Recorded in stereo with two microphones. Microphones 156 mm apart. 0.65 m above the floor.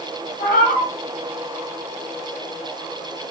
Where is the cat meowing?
70° left (ahead or behind), 1.4 m.